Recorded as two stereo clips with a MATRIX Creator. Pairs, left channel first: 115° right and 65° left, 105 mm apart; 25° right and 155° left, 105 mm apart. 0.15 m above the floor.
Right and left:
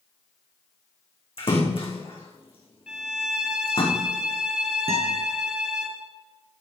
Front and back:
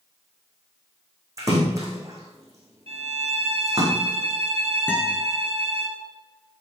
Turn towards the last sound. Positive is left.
turn(degrees=50)